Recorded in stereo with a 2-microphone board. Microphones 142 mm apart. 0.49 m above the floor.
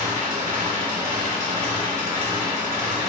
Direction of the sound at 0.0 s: 80° right.